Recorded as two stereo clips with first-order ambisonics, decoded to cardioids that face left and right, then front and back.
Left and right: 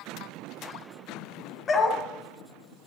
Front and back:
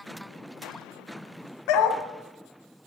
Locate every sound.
1.7 s a dog barking: 25° left, 1.2 m